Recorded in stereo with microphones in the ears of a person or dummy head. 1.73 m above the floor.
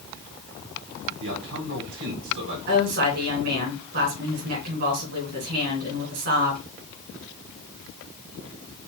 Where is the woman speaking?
50° right (ahead or behind), 3 m.